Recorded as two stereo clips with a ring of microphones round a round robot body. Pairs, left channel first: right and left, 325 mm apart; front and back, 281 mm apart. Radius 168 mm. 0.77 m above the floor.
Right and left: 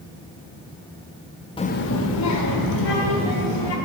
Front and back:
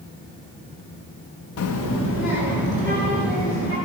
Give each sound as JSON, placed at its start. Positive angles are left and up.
{"t": 1.6, "sound": "a child speaking", "azimuth_deg": -15, "distance_m": 0.6}